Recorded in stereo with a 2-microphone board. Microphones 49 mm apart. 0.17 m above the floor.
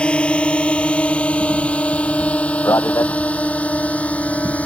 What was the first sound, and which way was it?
A drone, 20° left (ahead or behind).